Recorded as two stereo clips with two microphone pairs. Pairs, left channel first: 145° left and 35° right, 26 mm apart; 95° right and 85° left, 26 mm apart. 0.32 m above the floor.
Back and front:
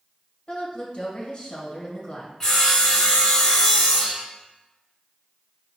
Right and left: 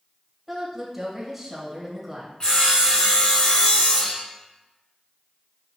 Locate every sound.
0.5 s a woman speaking: 165° left, 1.1 m
2.4 s sawing: 145° right, 1.5 m